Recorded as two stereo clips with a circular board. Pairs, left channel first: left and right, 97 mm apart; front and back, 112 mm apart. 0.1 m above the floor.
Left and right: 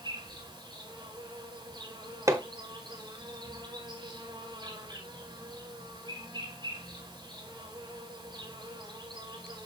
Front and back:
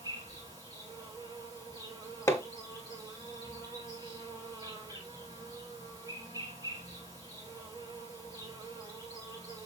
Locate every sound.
0.0 s an insect: 130° right, 6.5 m
2.3 s hammering: 55° right, 1.1 m